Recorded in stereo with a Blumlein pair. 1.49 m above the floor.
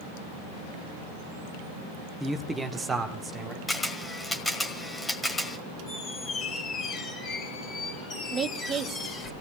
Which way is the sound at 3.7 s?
10° left.